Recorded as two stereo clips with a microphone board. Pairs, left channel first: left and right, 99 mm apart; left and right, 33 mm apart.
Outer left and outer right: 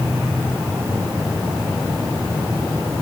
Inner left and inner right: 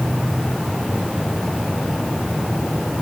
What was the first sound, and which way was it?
Only background noise.